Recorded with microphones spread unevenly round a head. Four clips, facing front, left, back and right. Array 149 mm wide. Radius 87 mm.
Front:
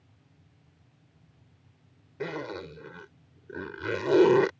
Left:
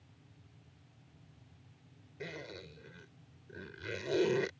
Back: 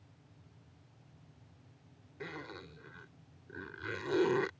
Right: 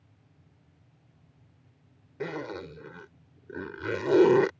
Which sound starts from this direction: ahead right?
A zipper, at 2.2 s.